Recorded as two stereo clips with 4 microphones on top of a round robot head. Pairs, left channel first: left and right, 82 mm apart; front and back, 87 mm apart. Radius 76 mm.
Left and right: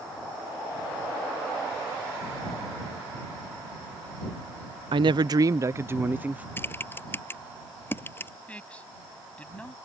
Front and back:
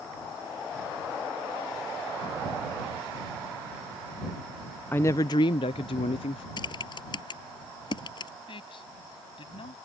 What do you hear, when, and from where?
4.9 s a woman speaking: 75° right; by 6.5 s 20° right
6.6 s typing on a keyboard: 30° left
8.5 s a man speaking: 15° left